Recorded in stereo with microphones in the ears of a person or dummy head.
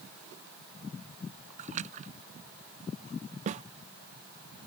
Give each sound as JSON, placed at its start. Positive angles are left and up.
{"t": 1.6, "sound": "a splash", "side_deg": -40}
{"t": 3.5, "sound": "a snare drum", "side_deg": -35}